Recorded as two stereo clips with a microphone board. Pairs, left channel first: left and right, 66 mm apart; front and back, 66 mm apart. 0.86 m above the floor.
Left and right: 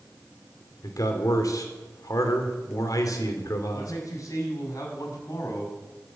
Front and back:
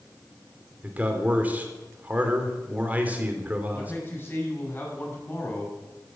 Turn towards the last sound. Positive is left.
turn(degrees=55)